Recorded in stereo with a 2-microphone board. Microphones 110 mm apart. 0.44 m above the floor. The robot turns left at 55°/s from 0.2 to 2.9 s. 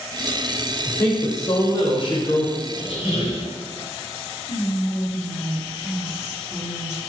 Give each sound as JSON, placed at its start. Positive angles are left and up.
{"t": 0.9, "sound": "a woman speaking", "azimuth_deg": 155, "distance_m": 1.0}
{"t": 2.7, "sound": "a squeak", "side_deg": 50, "distance_m": 1.7}
{"t": 4.5, "sound": "whispering", "side_deg": 20, "distance_m": 0.7}